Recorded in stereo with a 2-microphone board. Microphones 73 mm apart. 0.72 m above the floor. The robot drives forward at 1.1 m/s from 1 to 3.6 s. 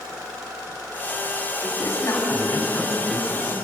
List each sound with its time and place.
1.6 s a man speaking: 55° left (ahead or behind), 5 m; by 3.5 s 35° left (ahead or behind), 6 m